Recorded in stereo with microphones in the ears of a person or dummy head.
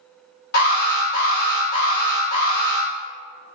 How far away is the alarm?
About 1.6 m.